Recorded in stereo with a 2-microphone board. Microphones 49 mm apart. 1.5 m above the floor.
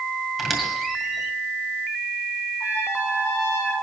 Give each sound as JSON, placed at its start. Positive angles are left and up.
{"t": 0.4, "sound": "a squeak", "side_deg": 0, "distance_m": 2.0}
{"t": 2.6, "sound": "a trumpet", "side_deg": 80, "distance_m": 5.5}